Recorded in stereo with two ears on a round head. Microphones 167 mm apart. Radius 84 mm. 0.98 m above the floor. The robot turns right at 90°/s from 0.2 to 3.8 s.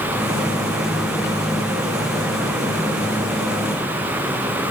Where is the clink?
No clink in this recording.